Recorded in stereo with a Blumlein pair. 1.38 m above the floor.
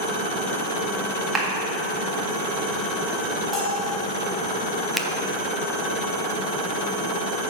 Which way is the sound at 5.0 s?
5° left.